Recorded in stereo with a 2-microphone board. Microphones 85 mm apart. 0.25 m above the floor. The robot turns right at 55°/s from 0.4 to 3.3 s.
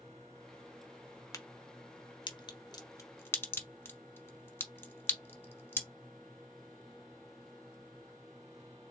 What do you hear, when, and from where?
1.3 s a crack: 40° left (ahead or behind), 0.9 m; by 5.9 s 25° left (ahead or behind), 0.9 m